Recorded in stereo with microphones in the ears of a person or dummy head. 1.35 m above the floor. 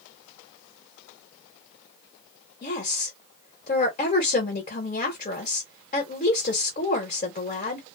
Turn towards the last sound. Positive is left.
turn(degrees=35)  # may be behind; listen again after turning